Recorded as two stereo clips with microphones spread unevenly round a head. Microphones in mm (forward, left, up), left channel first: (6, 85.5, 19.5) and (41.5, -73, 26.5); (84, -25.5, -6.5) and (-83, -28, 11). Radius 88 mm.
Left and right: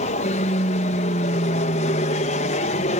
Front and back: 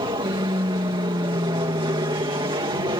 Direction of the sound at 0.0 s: 120° left.